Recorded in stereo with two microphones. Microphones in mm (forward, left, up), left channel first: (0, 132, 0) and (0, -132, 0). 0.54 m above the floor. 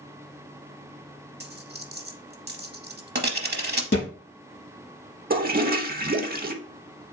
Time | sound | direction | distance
1.4 | a dropped coin | 40° right (ahead or behind) | 0.7 m
3.9 | a thud | 45° left (ahead or behind) | 3 m
5.3 | a toilet flushing | 40° right (ahead or behind) | 0.5 m